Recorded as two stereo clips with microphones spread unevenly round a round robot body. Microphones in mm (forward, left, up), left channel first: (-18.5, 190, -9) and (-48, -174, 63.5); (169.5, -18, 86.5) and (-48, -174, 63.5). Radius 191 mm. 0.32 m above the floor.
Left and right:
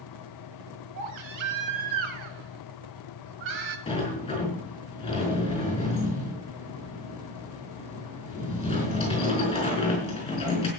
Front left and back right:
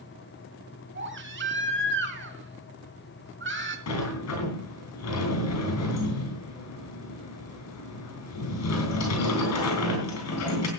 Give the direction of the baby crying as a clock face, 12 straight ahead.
3 o'clock.